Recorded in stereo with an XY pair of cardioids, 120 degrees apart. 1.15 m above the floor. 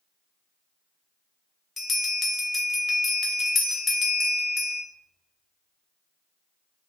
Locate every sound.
1.8 s a bell: 25° left, 0.5 m